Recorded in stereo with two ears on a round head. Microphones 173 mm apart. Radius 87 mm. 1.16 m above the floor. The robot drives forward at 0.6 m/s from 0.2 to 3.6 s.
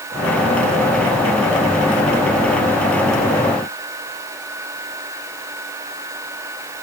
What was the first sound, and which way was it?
Only background noise.